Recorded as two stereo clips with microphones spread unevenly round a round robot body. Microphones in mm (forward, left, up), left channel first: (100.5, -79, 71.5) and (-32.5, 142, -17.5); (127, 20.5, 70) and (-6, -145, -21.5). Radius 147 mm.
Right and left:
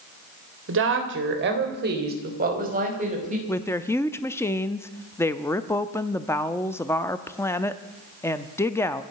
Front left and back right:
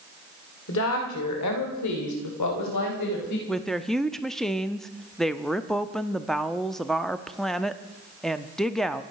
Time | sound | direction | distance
0.7 | a woman speaking | 105° left | 3 m
3.5 | a woman speaking | 170° right | 0.7 m